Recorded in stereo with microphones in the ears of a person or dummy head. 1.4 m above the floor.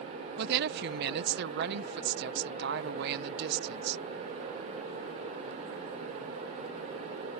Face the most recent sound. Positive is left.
turn(degrees=-65)  # may be behind; listen again after turning